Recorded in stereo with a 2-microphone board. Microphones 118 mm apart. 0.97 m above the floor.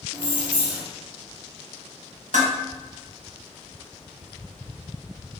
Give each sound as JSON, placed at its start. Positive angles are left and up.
{"t": 0.1, "sound": "keys jangling", "side_deg": -40, "distance_m": 1.0}
{"t": 2.3, "sound": "dishes clattering", "side_deg": -80, "distance_m": 0.8}